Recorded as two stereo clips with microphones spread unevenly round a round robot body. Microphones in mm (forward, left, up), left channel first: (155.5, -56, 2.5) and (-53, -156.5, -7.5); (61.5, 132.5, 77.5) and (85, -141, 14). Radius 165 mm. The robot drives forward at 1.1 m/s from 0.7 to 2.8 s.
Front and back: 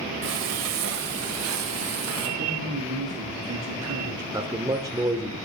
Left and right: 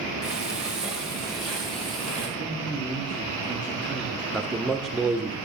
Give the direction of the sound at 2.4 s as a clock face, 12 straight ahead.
6 o'clock.